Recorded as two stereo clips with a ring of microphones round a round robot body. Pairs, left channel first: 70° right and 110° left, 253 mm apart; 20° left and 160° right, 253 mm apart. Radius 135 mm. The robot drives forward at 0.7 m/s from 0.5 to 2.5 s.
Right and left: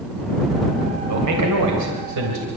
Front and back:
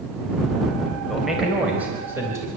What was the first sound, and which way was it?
A man speaking, 110° left.